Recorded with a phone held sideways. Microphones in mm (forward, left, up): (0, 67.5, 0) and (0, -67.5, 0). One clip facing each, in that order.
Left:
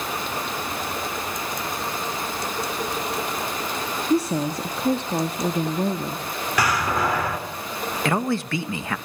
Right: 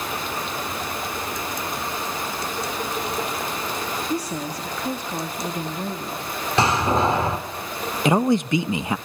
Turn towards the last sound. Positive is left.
turn(degrees=-20)  # may be behind; listen again after turning